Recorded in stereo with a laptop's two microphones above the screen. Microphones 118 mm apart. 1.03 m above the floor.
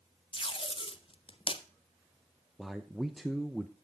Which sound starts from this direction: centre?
A man speaking, at 2.6 s.